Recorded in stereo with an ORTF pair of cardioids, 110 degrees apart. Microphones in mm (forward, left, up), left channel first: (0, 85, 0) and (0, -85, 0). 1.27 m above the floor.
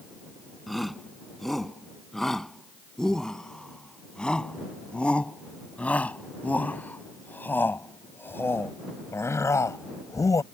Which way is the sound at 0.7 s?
Straight ahead.